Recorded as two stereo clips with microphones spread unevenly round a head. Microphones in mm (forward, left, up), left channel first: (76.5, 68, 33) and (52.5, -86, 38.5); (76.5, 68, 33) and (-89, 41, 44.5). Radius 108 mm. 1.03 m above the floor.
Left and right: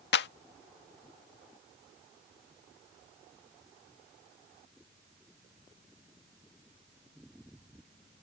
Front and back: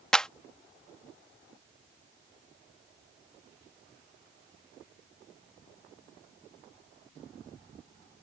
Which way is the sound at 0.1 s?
95° left.